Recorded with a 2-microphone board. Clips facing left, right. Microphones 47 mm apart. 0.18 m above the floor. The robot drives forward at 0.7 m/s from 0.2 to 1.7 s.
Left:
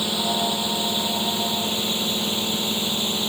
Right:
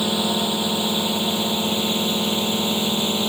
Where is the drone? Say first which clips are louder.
Right 2 dB; 20° right (ahead or behind).